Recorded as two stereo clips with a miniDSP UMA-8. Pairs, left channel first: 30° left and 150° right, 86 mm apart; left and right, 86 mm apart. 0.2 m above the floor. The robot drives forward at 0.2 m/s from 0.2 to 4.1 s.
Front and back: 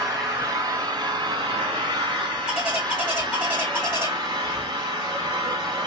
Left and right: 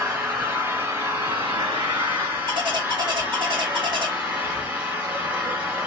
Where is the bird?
70° right, 1.2 m; by 4.1 s 85° right, 1.1 m.